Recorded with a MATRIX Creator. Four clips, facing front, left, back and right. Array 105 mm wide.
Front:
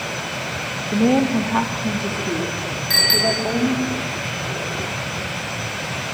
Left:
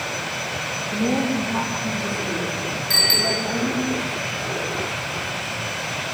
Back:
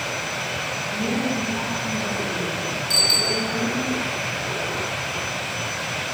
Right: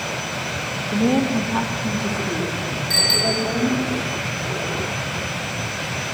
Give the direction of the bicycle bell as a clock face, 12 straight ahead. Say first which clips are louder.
Right 2 dB, front 7 dB; 12 o'clock.